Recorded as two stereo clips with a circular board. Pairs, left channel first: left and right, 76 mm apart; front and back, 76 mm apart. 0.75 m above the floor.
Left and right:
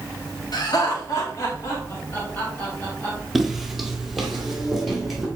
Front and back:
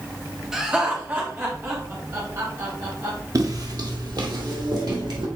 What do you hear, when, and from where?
0.5 s laughter: 100° left, 1.7 m; by 3.2 s 155° left, 2.5 m
3.4 s footsteps: 175° right, 1.0 m